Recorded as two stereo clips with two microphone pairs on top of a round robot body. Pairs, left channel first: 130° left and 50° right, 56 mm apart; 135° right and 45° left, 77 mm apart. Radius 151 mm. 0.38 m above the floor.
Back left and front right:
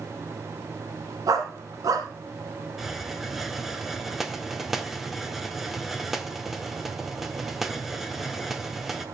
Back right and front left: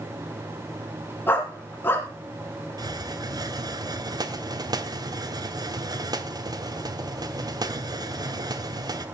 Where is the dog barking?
75° right, 1.6 m.